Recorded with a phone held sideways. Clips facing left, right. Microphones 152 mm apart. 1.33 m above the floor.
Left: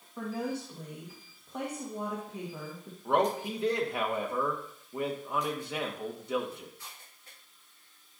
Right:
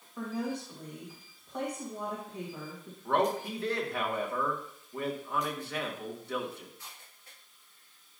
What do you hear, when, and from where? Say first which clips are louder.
0.2 s a woman speaking: even; 10° left (ahead or behind), 1.5 m
3.0 s a man speaking: left 1 dB; 15° left (ahead or behind), 1.5 m